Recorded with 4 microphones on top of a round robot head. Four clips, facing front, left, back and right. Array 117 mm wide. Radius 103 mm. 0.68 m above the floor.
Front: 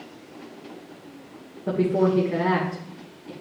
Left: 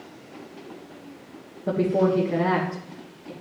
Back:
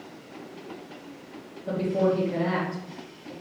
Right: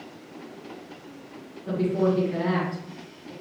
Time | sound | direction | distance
1.7 | a woman speaking | 35° left | 3 m